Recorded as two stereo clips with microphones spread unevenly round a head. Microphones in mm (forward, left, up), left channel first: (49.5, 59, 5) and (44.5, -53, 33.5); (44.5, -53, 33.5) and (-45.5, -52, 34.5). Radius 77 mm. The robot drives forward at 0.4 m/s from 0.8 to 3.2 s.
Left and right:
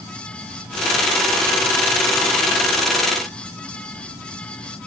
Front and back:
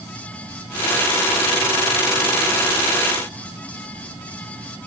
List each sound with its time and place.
Only background noise.